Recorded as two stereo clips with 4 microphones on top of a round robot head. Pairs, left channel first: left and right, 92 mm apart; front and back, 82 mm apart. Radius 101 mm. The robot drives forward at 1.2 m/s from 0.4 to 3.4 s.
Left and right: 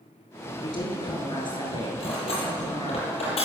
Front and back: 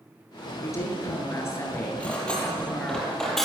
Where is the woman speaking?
55° left, 9 m; by 3.0 s 75° left, 7.5 m.